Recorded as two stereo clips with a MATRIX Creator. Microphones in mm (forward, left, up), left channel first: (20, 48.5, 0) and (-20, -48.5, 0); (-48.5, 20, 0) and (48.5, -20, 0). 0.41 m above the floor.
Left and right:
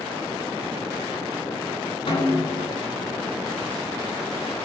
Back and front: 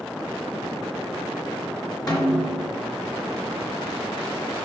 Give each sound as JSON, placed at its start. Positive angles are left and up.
{"t": 2.1, "sound": "a snare drum", "azimuth_deg": 105, "distance_m": 2.5}